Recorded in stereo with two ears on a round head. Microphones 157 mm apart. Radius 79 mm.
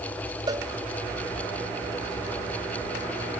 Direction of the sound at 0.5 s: 25° right (ahead or behind).